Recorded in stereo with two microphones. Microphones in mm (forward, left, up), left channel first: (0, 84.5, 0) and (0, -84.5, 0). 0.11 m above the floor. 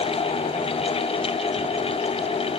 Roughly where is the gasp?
No gasp in this recording.